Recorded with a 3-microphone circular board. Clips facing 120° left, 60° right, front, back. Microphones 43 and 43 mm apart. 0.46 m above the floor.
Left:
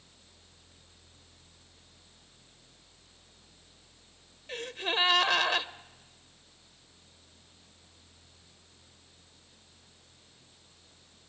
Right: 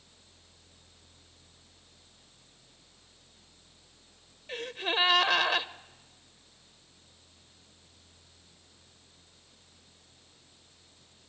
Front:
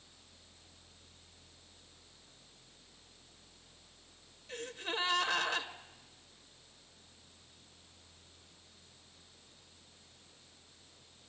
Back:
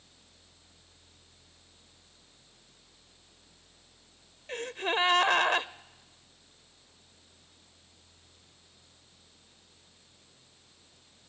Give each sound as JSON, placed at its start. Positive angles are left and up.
{"t": 4.5, "sound": "a gasp", "azimuth_deg": -150, "distance_m": 0.7}